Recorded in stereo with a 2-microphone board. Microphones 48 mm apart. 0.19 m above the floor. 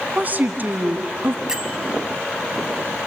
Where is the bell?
15° right (ahead or behind), 1.1 m.